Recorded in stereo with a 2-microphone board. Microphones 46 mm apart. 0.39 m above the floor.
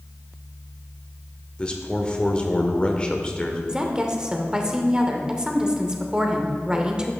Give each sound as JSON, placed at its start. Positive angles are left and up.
{"t": 1.6, "sound": "a man speaking", "side_deg": 20, "distance_m": 0.8}
{"t": 3.7, "sound": "a woman speaking", "side_deg": -20, "distance_m": 0.8}